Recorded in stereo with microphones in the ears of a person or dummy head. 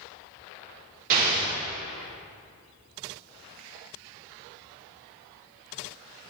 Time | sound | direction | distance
1.1 | an explosion | 45° right (ahead or behind) | 3.5 m